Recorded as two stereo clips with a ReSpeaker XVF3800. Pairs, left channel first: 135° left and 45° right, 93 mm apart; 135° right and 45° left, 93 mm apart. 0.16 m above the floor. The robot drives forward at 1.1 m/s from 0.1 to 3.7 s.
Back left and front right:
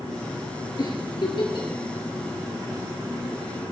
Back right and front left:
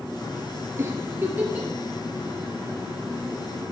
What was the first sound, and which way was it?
A giggle, 100° left.